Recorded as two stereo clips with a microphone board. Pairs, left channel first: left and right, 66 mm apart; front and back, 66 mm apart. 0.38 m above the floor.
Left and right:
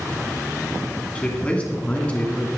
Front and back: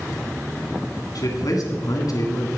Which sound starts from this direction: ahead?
A man speaking, at 1.1 s.